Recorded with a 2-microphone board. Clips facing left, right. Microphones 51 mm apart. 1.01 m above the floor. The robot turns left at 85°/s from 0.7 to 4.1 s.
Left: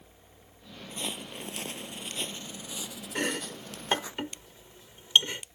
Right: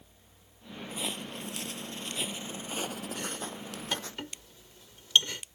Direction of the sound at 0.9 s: 15° right (ahead or behind).